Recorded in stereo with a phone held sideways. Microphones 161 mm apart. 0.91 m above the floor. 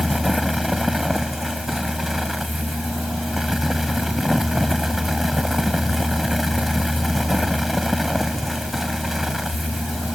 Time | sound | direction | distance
0.0 | a fan | centre (ahead or behind) | ?